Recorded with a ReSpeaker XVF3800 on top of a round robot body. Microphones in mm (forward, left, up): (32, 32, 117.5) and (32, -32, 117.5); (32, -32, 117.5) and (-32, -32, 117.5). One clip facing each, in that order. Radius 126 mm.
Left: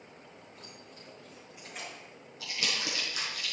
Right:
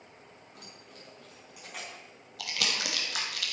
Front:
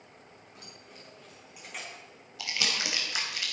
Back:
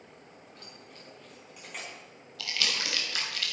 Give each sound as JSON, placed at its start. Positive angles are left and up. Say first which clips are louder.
{"t": 0.6, "sound": "keys jangling", "louder": "even, front 1 dB", "azimuth_deg": -80, "distance_m": 4.5}
{"t": 2.4, "sound": "crumpling", "louder": "right 1 dB, even", "azimuth_deg": -75, "distance_m": 2.5}